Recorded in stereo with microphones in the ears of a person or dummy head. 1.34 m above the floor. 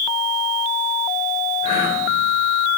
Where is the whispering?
30° left (ahead or behind), 4 m.